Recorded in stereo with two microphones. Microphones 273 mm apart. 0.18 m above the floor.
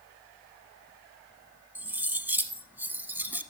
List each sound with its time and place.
1.8 s cutlery clinking: 5° right (ahead or behind), 0.7 m